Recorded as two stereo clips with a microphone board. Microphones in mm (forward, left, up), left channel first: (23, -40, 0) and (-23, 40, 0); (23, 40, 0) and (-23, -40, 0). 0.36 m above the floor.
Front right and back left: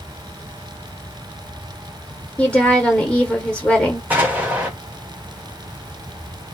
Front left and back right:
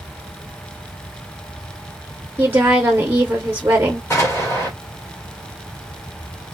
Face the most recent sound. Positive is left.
turn(degrees=65)